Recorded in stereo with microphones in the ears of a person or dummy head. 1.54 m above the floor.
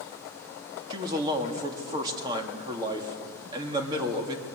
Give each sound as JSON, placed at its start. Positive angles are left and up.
{"t": 0.9, "sound": "a man speaking", "side_deg": -20, "distance_m": 2.5}